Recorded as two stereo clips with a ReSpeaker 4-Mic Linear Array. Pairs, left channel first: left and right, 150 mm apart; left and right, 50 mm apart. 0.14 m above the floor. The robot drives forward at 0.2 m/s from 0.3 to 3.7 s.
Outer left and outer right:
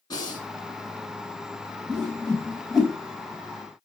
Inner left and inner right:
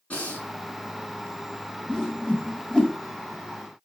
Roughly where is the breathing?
Left.